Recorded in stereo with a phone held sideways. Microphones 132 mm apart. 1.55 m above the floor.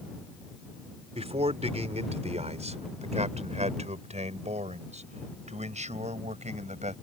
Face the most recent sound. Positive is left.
turn(degrees=-60)  # may be behind; listen again after turning